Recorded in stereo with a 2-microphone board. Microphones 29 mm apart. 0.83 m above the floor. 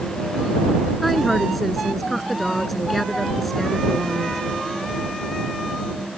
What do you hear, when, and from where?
1.0 s a woman speaking: 5° left (ahead or behind)